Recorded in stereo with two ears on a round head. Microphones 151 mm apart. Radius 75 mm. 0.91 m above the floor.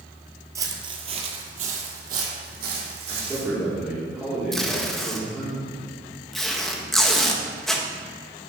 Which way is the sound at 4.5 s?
Centre (ahead or behind).